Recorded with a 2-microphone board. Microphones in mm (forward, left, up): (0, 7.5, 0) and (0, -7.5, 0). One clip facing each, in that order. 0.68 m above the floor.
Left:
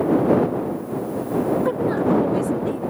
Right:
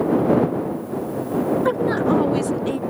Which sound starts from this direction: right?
A woman speaking, at 1.6 s.